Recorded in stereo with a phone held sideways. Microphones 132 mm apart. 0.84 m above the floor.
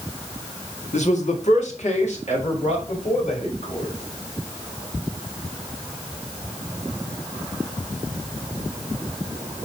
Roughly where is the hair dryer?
No hair dryer in this recording.